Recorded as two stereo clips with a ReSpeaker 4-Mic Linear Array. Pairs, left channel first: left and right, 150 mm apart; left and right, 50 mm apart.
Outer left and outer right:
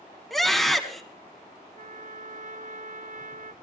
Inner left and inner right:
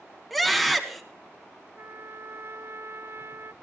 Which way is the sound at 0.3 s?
Centre (ahead or behind).